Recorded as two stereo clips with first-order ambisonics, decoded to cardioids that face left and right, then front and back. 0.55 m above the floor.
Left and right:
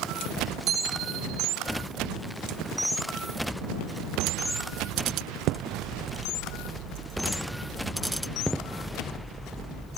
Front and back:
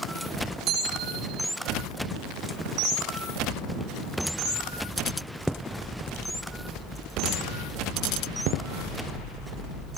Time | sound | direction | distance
0.7 | a bicycle bell | 125° right | ?